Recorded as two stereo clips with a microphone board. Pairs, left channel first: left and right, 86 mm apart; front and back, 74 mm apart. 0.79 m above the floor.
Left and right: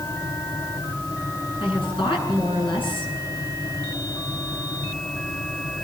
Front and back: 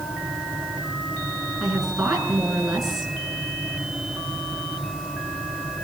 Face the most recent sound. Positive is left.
turn(degrees=95)